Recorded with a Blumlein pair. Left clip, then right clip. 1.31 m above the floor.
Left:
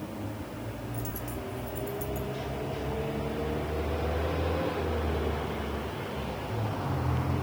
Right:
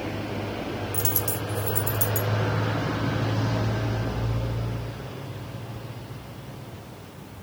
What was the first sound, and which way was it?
A dropped coin, 35° right.